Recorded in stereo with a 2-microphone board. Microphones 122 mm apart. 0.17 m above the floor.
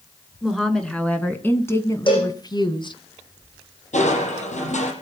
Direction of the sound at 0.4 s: Centre (ahead or behind).